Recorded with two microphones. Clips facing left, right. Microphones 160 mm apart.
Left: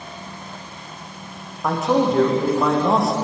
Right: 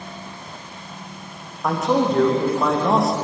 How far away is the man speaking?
About 7 m.